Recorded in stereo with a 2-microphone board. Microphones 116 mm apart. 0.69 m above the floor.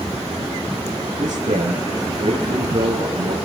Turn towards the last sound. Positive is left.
turn(degrees=-85)